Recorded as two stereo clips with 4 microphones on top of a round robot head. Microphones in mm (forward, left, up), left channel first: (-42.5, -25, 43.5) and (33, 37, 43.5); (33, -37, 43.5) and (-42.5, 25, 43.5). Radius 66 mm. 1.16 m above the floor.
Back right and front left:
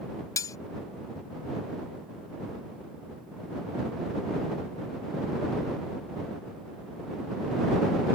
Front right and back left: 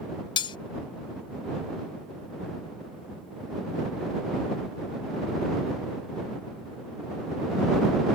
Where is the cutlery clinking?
80° right.